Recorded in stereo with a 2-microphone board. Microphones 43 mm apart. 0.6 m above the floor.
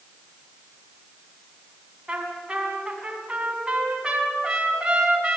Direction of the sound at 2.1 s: 20° right (ahead or behind).